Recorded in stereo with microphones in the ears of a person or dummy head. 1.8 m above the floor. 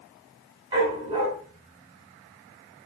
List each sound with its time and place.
0.7 s a dog barking: 25° right (ahead or behind), 3 m